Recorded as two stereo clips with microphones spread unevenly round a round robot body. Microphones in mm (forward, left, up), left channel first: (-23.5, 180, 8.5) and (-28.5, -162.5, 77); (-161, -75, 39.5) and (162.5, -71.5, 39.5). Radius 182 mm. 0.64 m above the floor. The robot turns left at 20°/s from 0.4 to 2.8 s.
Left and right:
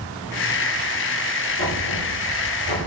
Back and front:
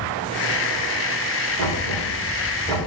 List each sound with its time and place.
1.6 s knocking: 125° left, 5 m; by 2.8 s 100° left, 5 m